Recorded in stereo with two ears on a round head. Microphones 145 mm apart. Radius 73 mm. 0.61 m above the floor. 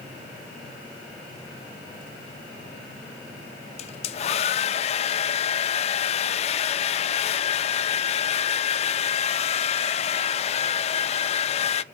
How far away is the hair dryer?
About 0.6 m.